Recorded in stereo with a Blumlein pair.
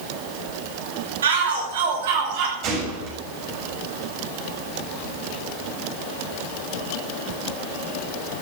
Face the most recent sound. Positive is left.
turn(degrees=-35)